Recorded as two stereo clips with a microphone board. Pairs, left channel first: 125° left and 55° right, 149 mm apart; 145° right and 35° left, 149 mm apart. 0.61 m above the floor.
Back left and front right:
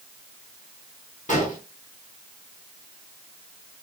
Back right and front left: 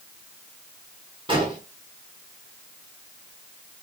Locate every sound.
1.3 s an explosion: 90° left, 1.2 m